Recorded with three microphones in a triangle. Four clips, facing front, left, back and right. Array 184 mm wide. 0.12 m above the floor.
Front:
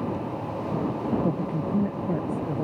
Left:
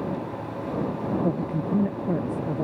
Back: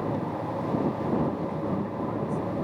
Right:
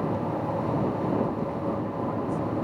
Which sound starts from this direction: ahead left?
A man speaking, at 1.2 s.